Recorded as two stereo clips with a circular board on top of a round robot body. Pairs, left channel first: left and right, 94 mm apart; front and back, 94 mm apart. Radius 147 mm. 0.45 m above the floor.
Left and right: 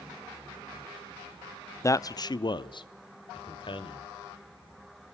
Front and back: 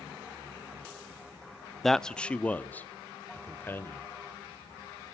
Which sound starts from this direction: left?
A man speaking, at 1.8 s.